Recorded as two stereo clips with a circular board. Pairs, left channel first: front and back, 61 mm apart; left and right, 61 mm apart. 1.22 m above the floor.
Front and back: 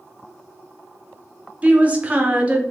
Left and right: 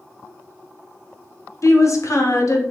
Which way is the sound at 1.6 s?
115° left.